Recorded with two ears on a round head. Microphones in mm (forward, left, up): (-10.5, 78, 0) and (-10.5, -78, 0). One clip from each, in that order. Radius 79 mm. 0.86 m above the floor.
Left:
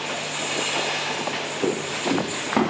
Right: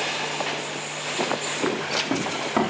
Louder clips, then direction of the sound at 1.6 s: Left 1 dB; 10° left (ahead or behind).